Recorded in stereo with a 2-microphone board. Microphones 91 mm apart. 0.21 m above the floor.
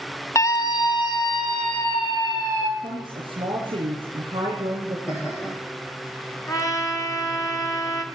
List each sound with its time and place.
0.3 s a scream: 35° left (ahead or behind), 1.1 m; by 2.7 s 60° left (ahead or behind), 4 m
2.8 s a woman speaking: 60° right (ahead or behind), 6.5 m
5.1 s laughter: 30° left (ahead or behind), 7 m
6.5 s a trumpet: 40° left (ahead or behind), 1.9 m